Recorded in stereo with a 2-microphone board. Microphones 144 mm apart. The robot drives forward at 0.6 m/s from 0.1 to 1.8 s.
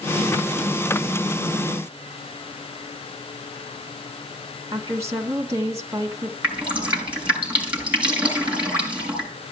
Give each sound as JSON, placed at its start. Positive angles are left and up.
{"t": 4.7, "sound": "a woman speaking", "side_deg": -20, "distance_m": 2.0}
{"t": 6.4, "sound": "dripping", "side_deg": -10, "distance_m": 6.5}